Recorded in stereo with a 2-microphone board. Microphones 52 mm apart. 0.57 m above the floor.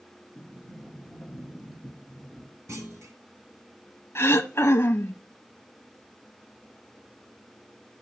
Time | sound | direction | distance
0.3 | a sliding door | centre (ahead or behind) | 1.5 m
2.7 | a clunk | 65° right (ahead or behind) | 1.2 m
4.2 | throat clearing | 55° left (ahead or behind) | 0.6 m